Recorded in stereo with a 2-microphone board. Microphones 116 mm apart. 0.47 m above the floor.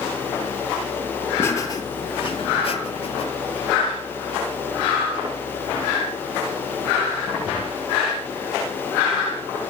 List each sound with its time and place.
1.4 s laughter: 20° left (ahead or behind), 1.1 m; by 3.3 s 55° left (ahead or behind), 1.8 m